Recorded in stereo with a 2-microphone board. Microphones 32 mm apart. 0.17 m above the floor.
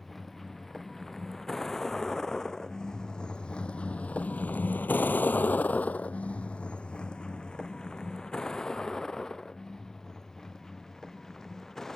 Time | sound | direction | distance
0.0 | a vehicle | 5° left (ahead or behind) | ?